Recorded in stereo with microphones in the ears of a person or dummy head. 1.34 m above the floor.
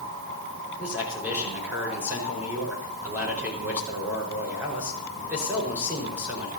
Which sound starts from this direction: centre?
A man speaking, at 0.8 s.